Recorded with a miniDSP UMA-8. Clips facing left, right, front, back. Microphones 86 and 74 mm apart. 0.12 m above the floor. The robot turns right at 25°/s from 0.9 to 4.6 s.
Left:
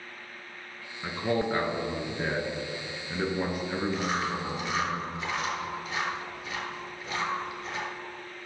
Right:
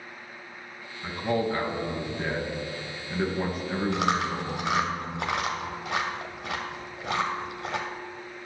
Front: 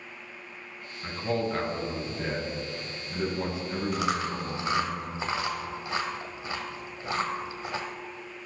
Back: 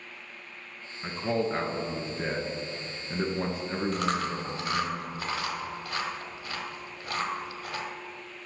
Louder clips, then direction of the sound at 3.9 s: Right 3 dB, front 2 dB; 90° right.